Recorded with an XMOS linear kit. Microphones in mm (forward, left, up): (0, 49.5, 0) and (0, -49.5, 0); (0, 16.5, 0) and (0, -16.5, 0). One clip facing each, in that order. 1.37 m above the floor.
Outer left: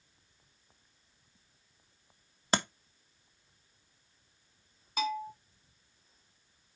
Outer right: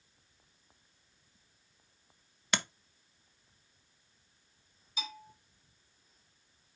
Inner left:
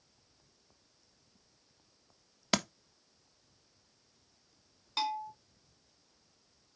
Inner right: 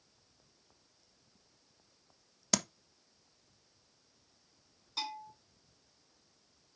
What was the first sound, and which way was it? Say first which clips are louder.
Tapping: outer left 5 dB, inner left 3 dB; 35° left (ahead or behind).